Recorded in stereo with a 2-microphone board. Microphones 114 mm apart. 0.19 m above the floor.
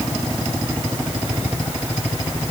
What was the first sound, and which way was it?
Only background noise.